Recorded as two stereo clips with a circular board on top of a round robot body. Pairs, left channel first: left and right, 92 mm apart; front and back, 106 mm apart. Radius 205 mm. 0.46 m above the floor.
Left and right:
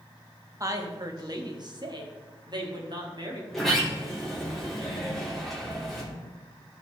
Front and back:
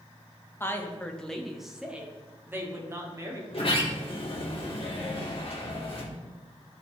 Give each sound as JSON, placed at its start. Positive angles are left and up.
{"t": 0.6, "sound": "a woman speaking", "azimuth_deg": -55, "distance_m": 1.3}
{"t": 3.5, "sound": "a sliding door", "azimuth_deg": 0, "distance_m": 2.0}